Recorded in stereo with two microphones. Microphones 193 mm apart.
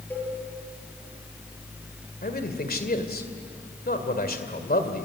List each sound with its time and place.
0.1 s a cowbell: 10° left (ahead or behind), 7.5 m
2.2 s a man speaking: 50° left (ahead or behind), 2 m